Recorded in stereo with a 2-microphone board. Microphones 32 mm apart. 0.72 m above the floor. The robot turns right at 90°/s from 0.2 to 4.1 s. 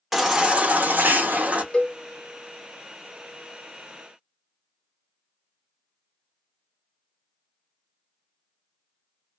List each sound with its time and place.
0.1 s a baby crying: 175° right, 0.8 m; by 1.6 s 45° right, 0.8 m
1.7 s a cowbell: 35° left (ahead or behind), 0.5 m; by 2.0 s 40° left (ahead or behind), 0.5 m